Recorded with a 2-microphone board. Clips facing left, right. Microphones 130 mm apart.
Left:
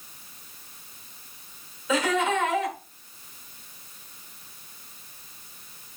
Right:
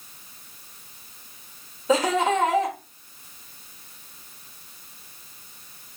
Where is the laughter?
35° right (ahead or behind), 1.4 m.